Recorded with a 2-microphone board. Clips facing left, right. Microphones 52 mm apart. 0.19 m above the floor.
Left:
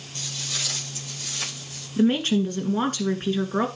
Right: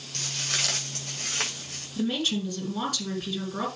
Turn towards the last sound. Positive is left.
turn(degrees=35)  # may be behind; listen again after turning